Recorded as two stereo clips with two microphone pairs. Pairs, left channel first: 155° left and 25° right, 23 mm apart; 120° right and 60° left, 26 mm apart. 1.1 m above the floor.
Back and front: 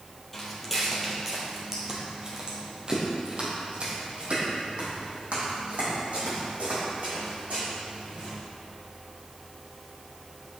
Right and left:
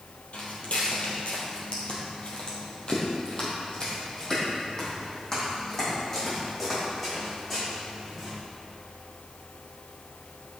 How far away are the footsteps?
About 2 m.